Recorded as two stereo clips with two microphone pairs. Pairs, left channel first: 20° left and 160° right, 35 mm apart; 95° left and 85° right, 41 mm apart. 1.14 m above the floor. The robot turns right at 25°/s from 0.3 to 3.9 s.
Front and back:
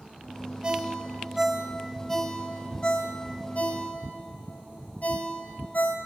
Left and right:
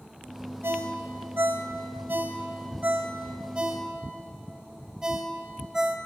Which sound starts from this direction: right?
A ringtone, at 0.6 s.